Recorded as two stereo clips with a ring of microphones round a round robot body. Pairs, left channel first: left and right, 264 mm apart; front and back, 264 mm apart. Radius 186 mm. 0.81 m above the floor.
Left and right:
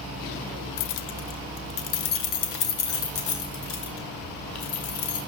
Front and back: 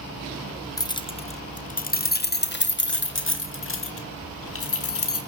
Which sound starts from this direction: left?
Keys jangling, at 0.8 s.